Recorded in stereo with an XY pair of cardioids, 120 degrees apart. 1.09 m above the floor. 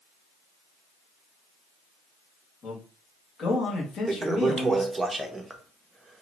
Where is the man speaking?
45° left, 1.7 m.